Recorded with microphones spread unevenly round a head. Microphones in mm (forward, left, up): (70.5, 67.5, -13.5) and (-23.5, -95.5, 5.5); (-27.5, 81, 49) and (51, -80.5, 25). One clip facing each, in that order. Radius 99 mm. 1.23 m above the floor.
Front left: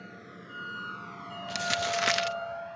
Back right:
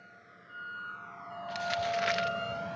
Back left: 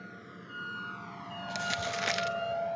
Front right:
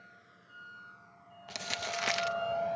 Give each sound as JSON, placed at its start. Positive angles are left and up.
{"t": 0.0, "sound": "a vehicle", "azimuth_deg": 95}
{"t": 1.5, "sound": "crumpling", "azimuth_deg": 30}